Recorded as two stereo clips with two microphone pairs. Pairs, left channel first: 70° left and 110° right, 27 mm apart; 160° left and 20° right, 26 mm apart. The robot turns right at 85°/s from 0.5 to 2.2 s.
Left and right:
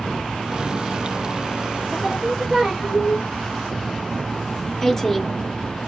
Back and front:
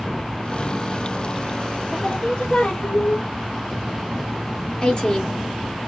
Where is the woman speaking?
135° left, 1.8 m.